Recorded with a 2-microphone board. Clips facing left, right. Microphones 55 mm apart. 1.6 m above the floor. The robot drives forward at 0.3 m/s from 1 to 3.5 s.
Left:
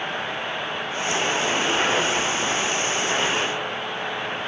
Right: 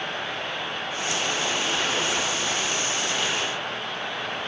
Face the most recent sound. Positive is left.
No sound to turn to.